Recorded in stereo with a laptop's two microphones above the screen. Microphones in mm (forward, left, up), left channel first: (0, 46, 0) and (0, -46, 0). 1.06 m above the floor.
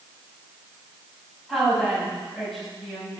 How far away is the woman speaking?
About 6.5 m.